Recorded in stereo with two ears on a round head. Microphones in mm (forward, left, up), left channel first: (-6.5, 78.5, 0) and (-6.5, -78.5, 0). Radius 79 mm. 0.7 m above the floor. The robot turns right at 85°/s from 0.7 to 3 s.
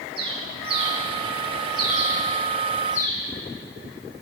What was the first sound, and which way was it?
A bird, 30° right (ahead or behind).